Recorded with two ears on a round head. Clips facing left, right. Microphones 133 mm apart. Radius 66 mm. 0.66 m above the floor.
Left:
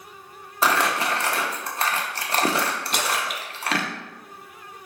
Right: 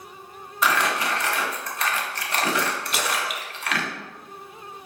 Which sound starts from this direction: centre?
A splash, at 2.9 s.